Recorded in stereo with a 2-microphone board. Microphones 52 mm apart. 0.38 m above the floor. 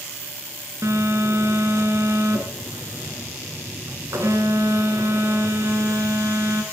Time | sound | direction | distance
0.8 | a phone buzzing | 85° right | 2.5 m